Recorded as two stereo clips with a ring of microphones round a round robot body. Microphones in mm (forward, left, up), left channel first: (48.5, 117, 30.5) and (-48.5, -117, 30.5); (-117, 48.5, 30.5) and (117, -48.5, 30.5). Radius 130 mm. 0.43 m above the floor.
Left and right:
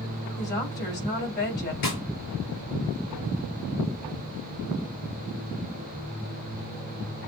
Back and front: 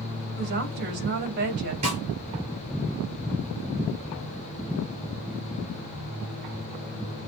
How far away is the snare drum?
About 5 m.